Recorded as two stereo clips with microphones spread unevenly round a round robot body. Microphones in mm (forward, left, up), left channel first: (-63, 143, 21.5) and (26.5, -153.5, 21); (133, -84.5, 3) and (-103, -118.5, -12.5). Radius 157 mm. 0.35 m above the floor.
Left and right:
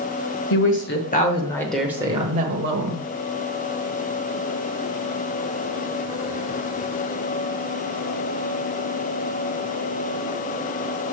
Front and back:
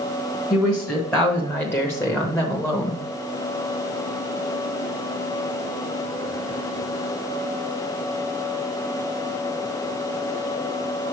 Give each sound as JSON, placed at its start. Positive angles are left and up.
{"t": 0.5, "sound": "a woman speaking", "azimuth_deg": 95, "distance_m": 1.2}